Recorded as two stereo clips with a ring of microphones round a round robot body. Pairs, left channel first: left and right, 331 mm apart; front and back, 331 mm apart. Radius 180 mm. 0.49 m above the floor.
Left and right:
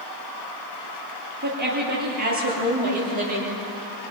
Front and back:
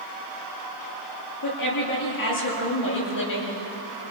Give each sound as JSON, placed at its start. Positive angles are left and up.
{"t": 1.4, "sound": "a woman speaking", "azimuth_deg": -30, "distance_m": 9.5}